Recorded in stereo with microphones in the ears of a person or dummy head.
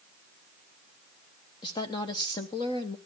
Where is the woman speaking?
25° left (ahead or behind), 1.0 m.